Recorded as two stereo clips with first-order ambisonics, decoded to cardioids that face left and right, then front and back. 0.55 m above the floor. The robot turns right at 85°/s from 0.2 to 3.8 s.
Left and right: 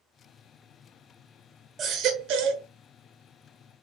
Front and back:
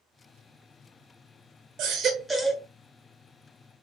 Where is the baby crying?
145° right, 1.0 m; by 2.6 s 75° right, 1.0 m.